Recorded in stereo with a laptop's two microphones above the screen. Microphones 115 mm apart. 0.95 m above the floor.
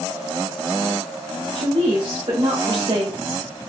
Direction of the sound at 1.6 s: 55° right (ahead or behind).